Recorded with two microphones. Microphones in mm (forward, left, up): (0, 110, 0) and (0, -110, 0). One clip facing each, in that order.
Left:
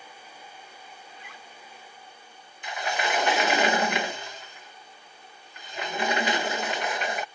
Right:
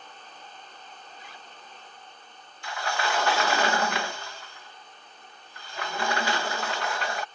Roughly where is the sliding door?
Left.